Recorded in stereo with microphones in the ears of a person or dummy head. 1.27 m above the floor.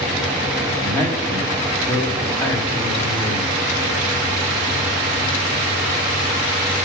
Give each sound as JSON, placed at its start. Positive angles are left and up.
{"t": 0.8, "sound": "a man speaking", "side_deg": 10, "distance_m": 3.0}